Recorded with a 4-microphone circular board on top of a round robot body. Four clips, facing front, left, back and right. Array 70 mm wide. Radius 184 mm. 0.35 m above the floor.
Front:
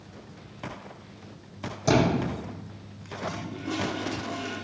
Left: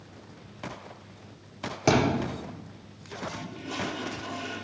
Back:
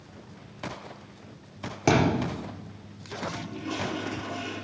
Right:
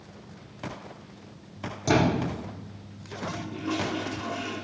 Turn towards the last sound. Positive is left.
turn(degrees=-105)